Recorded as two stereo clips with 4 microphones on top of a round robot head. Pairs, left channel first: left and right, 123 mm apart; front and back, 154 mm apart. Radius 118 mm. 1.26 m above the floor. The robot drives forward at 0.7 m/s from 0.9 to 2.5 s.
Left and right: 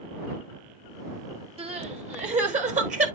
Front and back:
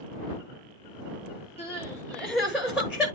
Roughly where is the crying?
Ahead right.